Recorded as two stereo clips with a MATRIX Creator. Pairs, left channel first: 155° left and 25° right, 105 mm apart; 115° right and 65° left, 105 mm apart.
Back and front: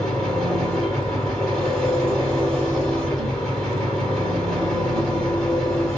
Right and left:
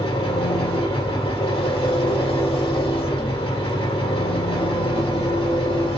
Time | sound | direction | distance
0.0 | an engine running | 120° right | 3 m